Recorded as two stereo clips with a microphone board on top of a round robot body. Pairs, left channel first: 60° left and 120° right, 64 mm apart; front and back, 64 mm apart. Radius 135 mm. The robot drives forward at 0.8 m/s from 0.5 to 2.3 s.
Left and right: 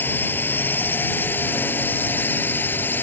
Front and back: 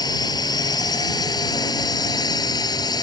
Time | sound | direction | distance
0.0 | a drone | straight ahead | ?